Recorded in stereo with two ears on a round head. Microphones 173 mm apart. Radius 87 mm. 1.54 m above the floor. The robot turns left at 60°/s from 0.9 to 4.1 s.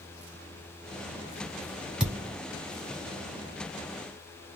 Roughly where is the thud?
Centre.